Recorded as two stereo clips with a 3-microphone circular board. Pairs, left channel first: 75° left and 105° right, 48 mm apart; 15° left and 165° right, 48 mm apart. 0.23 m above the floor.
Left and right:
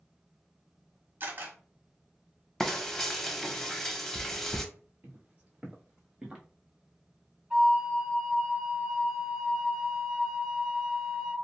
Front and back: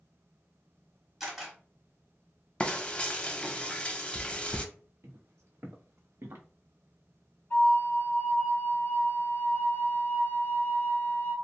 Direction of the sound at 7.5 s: 30° right.